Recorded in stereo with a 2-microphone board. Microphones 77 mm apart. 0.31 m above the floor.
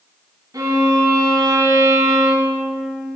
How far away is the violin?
About 2 m.